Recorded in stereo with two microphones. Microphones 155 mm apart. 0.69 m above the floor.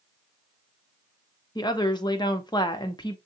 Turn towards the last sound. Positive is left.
turn(degrees=25)  # may be behind; listen again after turning